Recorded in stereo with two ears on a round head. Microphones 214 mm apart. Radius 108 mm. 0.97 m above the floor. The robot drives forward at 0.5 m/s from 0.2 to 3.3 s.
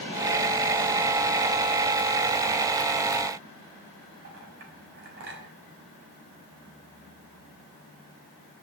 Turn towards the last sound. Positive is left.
turn(degrees=-50)  # may be behind; listen again after turning